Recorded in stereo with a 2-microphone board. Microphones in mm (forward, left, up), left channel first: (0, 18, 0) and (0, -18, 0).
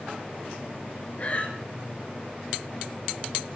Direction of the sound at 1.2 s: 40° left (ahead or behind).